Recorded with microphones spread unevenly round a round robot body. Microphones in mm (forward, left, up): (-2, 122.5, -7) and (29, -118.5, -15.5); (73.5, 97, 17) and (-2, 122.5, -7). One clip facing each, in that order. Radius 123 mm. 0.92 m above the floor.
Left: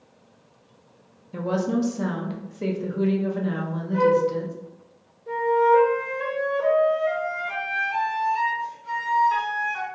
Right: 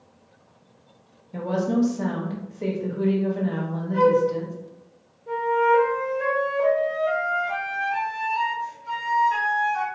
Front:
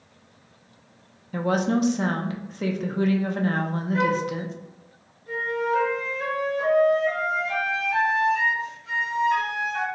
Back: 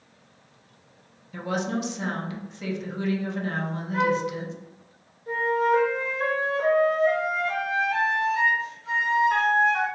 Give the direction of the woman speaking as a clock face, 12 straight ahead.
11 o'clock.